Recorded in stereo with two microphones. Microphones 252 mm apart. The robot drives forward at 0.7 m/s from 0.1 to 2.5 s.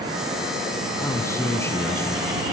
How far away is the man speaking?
About 1.4 m.